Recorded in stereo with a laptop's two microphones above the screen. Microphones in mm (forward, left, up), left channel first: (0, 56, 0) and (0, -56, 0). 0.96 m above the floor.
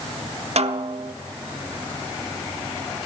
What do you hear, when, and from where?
0.6 s a snare drum: 70° right (ahead or behind), 0.9 m